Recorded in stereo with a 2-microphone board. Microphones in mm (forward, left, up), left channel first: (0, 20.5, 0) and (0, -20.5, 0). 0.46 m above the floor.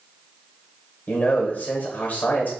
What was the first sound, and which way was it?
A man speaking, 45° left (ahead or behind).